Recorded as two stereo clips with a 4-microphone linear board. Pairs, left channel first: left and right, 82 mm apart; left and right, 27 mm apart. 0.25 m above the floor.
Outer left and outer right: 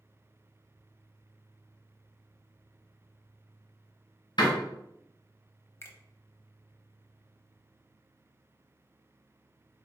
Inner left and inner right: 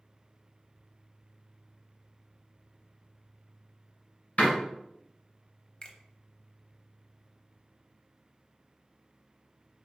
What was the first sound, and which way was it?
A door slam, 65° left (ahead or behind).